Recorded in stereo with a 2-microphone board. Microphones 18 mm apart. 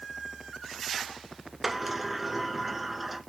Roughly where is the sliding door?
Centre.